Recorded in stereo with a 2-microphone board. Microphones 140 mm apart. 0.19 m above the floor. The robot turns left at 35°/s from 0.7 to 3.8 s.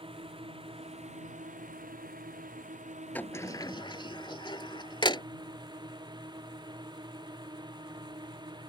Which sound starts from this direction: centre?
A sliding door, at 3.1 s.